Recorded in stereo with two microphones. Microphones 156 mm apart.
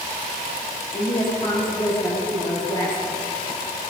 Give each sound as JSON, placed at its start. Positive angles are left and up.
{"t": 0.9, "sound": "a woman speaking", "side_deg": 35, "distance_m": 8.0}